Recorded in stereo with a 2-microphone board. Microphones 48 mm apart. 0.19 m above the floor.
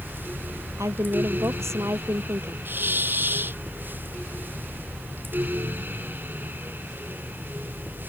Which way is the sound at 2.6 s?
40° right (ahead or behind).